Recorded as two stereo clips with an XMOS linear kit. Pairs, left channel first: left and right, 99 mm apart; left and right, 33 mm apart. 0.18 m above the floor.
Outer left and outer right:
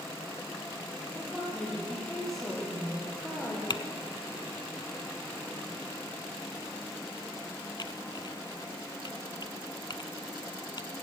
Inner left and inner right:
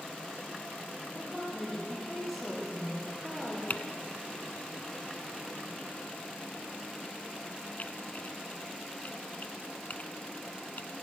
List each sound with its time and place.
1.1 s a woman speaking: 5° left (ahead or behind), 6.5 m
3.7 s typing on a keyboard: 50° left (ahead or behind), 0.5 m